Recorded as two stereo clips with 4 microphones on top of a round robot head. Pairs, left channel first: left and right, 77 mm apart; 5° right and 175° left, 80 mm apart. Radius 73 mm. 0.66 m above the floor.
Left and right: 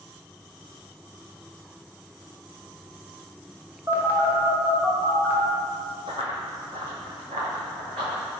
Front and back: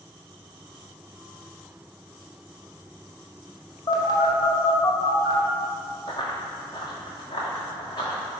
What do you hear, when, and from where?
3.9 s a phone buzzing: 25° right, 1.7 m
6.1 s running footsteps: 55° right, 0.9 m; by 8.4 s 60° right, 3 m